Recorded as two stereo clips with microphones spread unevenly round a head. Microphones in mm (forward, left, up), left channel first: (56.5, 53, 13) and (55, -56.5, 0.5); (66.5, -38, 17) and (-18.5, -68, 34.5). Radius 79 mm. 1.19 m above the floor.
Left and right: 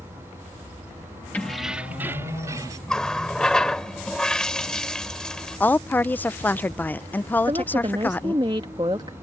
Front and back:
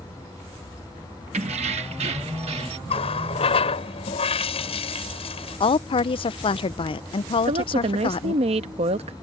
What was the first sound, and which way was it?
Keys jangling, 170° left.